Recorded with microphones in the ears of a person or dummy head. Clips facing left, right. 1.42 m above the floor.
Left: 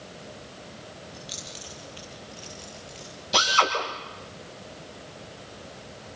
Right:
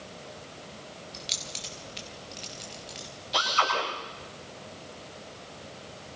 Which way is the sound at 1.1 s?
35° right (ahead or behind).